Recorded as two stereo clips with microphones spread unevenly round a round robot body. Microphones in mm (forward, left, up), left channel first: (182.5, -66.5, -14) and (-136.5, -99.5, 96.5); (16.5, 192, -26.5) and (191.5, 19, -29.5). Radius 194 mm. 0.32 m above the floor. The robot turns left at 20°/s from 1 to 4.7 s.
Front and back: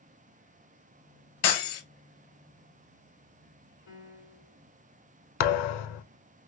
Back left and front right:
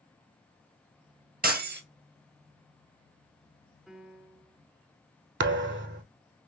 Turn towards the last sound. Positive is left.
turn(degrees=5)